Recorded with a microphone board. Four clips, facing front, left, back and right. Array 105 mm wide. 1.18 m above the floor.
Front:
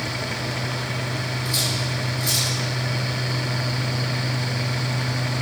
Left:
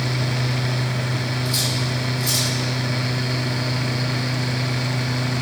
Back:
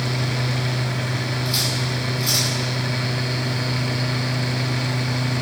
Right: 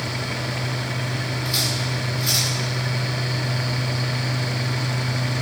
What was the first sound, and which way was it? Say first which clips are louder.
Cutlery clinking: left 2 dB, back 2 dB; 135° right.